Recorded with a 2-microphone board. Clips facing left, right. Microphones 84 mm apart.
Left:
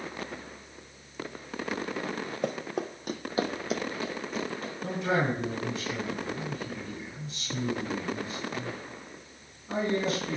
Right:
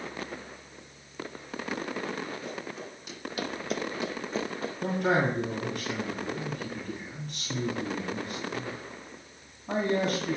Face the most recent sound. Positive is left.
turn(degrees=-60)  # may be behind; listen again after turning